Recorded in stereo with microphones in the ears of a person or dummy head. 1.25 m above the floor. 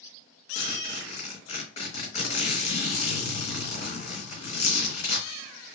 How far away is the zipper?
About 1.4 m.